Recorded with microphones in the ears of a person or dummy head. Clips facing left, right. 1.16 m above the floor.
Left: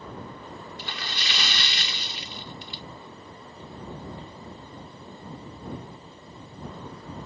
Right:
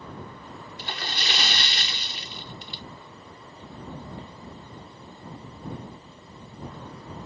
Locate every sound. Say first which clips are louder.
0.8 s a splash: right 6 dB; 40° right (ahead or behind)